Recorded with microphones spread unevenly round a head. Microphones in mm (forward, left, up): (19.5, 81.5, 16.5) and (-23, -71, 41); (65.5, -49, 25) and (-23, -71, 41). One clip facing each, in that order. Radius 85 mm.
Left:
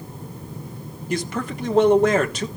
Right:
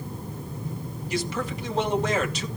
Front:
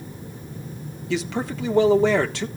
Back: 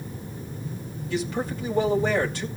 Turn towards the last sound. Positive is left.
turn(degrees=30)